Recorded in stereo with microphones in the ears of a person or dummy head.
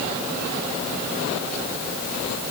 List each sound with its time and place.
Only background noise.